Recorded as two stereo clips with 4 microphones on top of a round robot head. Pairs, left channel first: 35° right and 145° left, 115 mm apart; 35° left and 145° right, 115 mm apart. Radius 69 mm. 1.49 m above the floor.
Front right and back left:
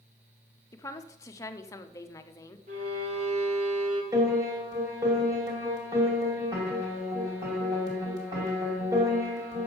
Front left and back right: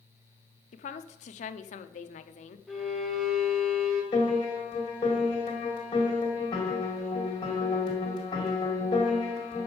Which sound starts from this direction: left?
A piano, at 4.1 s.